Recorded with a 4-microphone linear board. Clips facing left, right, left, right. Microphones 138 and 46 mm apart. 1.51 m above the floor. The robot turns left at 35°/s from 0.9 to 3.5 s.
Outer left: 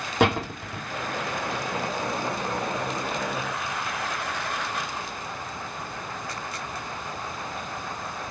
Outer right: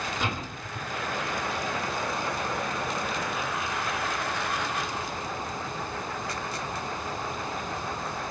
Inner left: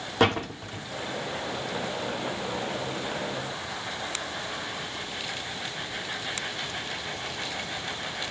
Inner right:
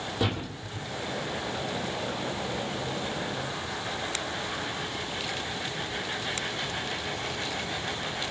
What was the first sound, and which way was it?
A door slam, 75° left (ahead or behind).